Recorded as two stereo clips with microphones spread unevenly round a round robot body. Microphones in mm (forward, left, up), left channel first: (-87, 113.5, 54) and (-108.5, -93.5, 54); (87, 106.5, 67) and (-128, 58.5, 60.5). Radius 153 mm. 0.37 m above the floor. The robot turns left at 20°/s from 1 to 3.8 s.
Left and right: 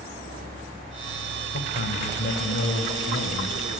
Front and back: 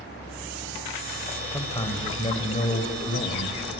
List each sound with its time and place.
1.5 s a man speaking: 85° left, 1.7 m; by 3.6 s 45° left, 1.7 m